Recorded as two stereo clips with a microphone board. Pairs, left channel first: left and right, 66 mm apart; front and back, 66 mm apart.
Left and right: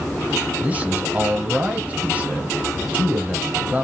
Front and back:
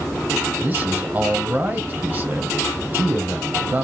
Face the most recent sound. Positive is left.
turn(degrees=-135)